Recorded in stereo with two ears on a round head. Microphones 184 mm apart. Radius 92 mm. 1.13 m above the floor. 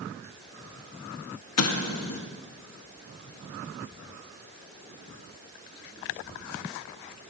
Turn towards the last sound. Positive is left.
turn(degrees=80)